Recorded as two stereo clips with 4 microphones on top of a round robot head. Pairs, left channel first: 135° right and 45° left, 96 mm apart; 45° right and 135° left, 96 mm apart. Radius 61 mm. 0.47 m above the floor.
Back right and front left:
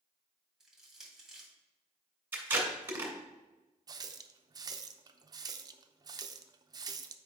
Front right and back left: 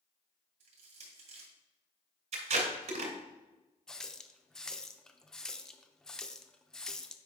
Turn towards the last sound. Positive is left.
turn(degrees=35)